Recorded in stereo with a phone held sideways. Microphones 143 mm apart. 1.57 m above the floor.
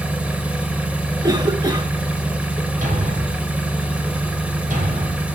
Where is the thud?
75° right (ahead or behind), 4 m.